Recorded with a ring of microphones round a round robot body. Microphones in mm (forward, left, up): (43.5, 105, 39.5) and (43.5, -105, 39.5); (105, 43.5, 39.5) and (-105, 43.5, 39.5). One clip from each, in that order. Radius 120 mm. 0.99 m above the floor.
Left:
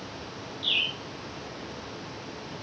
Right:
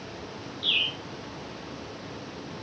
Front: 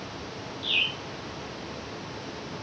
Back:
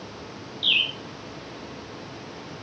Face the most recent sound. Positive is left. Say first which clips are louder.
# right 1 dB, back 4 dB
turn(degrees=-175)